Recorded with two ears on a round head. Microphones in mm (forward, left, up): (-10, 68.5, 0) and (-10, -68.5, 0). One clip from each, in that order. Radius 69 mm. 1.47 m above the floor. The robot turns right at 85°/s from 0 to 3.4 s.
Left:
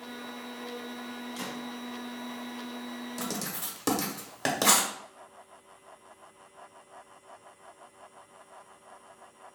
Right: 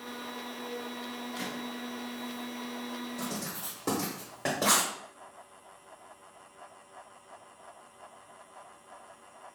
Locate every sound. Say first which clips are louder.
1.4 s a gunshot: even; 25° left (ahead or behind), 1.4 m; by 1.6 s 10° left (ahead or behind), 1.4 m
3.2 s writing: left 2 dB; 60° left (ahead or behind), 0.9 m; by 4.9 s 70° left (ahead or behind), 0.9 m